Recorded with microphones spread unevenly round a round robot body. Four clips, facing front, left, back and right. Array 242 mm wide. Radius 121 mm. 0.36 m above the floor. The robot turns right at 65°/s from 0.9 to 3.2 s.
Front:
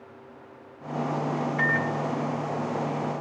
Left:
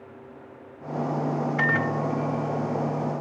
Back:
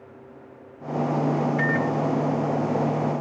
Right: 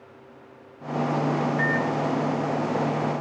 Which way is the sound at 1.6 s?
100° left.